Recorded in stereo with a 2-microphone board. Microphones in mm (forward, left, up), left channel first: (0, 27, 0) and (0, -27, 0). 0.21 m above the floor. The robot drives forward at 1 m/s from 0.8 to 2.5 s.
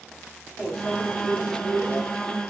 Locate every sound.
0.6 s a microwave: 10° left (ahead or behind), 1.4 m